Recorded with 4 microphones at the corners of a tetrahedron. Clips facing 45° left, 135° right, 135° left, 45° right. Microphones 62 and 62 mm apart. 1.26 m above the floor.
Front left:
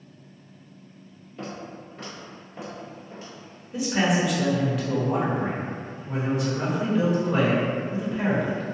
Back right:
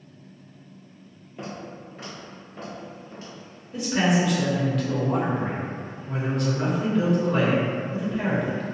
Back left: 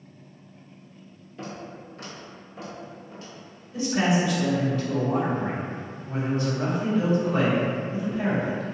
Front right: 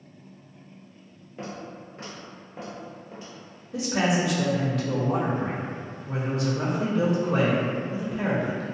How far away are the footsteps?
About 1.4 m.